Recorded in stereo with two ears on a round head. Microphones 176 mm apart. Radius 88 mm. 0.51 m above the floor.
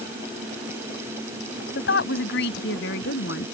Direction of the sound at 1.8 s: 60° left (ahead or behind).